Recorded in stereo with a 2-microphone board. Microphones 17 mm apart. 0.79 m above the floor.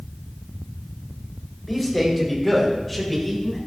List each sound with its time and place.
1.7 s a man speaking: 5° right (ahead or behind), 3.5 m; by 3.6 s 5° left (ahead or behind), 5.5 m